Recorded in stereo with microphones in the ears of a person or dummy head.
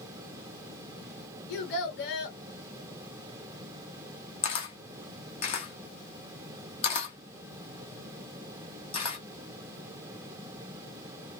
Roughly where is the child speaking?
Left.